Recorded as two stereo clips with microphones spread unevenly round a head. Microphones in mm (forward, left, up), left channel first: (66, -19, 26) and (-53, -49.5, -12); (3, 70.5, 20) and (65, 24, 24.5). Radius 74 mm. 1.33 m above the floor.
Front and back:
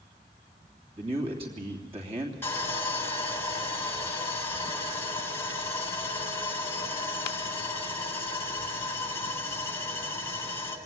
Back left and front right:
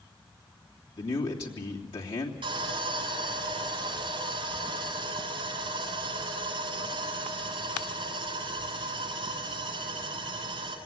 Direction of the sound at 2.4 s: 55° right.